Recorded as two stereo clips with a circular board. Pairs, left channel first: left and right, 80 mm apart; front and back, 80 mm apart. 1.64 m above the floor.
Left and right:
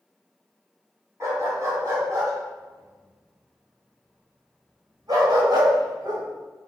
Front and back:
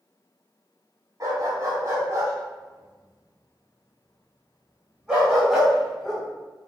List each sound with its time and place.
1.2 s a dog barking: 140° right, 3.5 m; by 6.2 s 90° right, 3 m